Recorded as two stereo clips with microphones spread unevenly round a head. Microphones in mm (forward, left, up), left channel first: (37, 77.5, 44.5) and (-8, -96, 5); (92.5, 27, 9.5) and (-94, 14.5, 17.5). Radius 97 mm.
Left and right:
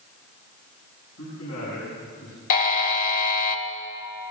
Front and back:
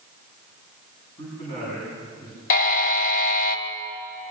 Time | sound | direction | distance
1.2 | a man speaking | 75° left | 9 m
2.5 | a buzzer | 45° left | 1.9 m